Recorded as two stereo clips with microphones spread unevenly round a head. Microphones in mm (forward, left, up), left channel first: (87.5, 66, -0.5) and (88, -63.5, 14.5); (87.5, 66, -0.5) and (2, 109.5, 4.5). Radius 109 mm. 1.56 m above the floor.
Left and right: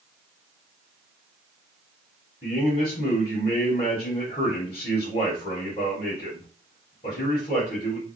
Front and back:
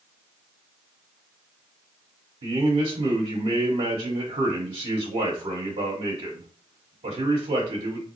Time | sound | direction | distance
2.4 | a man speaking | 155° left | 1.4 m